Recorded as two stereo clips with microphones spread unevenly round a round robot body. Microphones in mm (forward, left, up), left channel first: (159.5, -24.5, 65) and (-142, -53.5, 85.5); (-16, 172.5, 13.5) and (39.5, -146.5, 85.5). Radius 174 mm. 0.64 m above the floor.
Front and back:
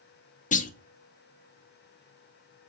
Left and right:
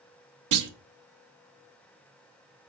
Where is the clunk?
50° right, 0.8 m.